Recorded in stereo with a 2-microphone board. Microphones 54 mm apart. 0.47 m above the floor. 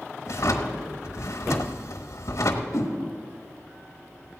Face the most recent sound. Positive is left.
turn(degrees=75)  # may be behind; listen again after turning